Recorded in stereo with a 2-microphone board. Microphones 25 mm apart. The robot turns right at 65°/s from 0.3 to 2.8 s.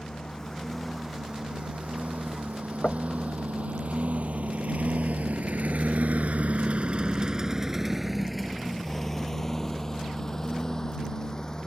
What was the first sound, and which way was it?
A lawn mower, 35° left (ahead or behind).